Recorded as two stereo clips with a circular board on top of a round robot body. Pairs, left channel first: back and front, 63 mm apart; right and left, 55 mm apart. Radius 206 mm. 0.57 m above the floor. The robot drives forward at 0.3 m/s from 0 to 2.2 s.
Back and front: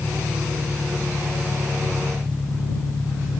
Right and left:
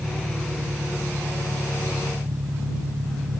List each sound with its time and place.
0.0 s an engine running: 95° left